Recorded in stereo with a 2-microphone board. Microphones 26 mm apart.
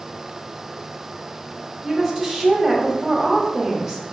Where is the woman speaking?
5° right (ahead or behind), 0.9 m.